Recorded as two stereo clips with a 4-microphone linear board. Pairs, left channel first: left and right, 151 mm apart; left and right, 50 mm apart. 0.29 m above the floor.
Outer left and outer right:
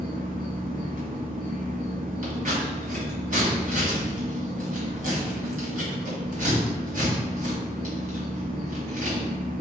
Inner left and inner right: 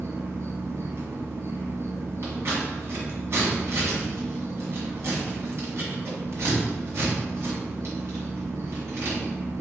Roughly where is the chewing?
I don't hear chewing.